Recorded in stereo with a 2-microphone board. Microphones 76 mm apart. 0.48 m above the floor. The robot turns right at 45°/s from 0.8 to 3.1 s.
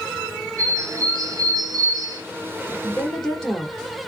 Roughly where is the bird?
Behind right.